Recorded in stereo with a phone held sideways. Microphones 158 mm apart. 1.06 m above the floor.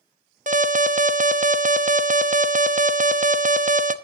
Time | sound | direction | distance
0.5 | an alarm | 55° right (ahead or behind) | 0.9 m